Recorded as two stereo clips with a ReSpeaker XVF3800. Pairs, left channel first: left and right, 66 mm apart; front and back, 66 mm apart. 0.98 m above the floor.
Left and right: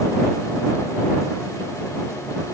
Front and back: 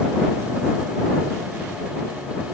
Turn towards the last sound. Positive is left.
No sound to turn to.